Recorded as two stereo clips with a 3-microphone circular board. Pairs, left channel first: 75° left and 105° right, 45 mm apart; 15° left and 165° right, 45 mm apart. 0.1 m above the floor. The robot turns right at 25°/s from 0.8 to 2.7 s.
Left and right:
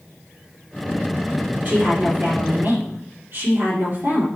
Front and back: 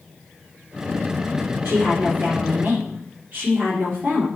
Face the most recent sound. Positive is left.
turn(degrees=-130)